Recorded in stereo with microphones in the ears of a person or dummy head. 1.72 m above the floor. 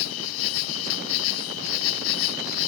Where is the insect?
70° left (ahead or behind).